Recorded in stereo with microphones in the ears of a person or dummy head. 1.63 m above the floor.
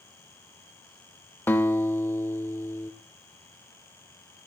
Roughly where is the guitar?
Centre.